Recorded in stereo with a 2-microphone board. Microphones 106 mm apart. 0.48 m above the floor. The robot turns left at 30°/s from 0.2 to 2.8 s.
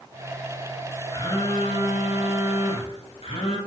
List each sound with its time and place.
1.1 s a phone buzzing: 135° left, 3.5 m; by 3.6 s 85° left, 3.5 m